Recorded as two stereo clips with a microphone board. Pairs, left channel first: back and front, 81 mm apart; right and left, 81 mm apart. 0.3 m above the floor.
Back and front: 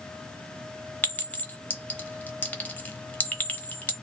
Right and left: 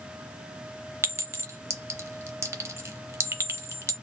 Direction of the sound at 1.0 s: 120° left.